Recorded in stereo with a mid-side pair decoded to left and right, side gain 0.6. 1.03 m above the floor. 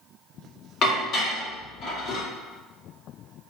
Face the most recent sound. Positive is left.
turn(degrees=55)